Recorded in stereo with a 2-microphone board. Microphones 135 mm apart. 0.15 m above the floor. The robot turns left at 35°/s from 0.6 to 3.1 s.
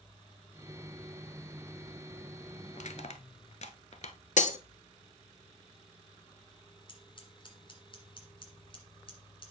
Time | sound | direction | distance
2.7 | crushing | 65° left (ahead or behind) | 0.6 m
4.4 | breaking glass | 65° left (ahead or behind) | 0.6 m
6.9 | scissors | 35° left (ahead or behind) | 1.8 m